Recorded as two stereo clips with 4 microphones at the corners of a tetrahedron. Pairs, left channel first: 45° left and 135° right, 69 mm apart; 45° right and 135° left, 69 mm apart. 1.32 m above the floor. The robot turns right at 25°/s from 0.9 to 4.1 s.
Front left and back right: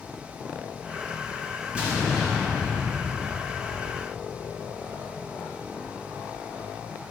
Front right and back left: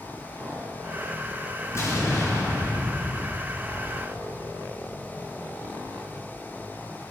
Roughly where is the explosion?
Right.